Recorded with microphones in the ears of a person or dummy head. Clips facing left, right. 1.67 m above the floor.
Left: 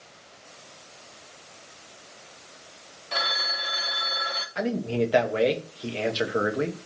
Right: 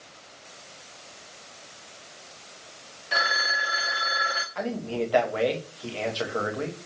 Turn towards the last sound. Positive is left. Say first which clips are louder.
# left 4 dB
turn(degrees=25)  # may be behind; listen again after turning